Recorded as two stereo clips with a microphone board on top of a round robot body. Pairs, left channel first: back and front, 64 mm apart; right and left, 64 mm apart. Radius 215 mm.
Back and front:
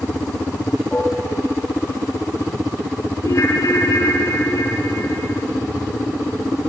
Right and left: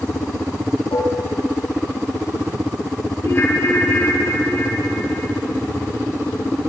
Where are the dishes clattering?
100° right, 8 m.